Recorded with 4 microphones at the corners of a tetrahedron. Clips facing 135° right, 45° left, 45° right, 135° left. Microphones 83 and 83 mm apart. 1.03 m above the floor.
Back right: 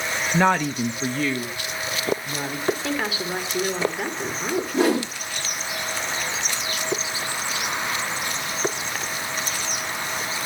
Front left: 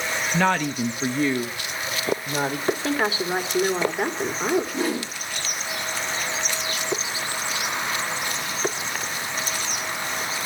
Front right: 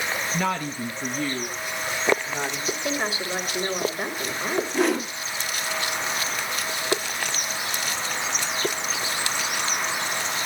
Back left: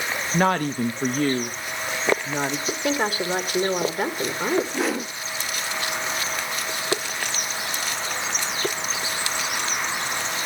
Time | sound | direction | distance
0.3 | a woman speaking | 165° left | 0.9 m
2.7 | a woman speaking | 105° left | 3 m
4.7 | a whoosh | 135° right | 1.3 m